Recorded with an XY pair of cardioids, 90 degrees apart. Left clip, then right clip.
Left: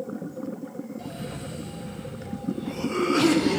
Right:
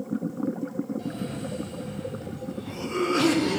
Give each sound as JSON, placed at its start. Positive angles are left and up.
{"t": 1.0, "sound": "a cough", "azimuth_deg": 10, "distance_m": 1.9}